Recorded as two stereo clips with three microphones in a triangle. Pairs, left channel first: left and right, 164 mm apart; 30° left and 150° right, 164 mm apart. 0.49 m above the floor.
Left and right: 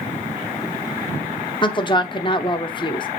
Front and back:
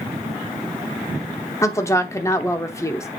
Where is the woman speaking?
80° left, 0.8 m.